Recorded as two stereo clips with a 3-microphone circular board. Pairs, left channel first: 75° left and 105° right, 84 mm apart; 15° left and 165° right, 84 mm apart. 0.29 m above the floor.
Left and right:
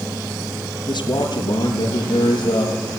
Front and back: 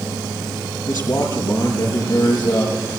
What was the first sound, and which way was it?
A man speaking, 55° left.